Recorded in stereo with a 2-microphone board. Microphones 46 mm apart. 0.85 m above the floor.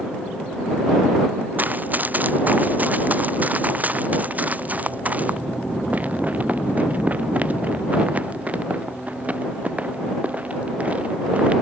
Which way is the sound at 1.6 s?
40° right (ahead or behind).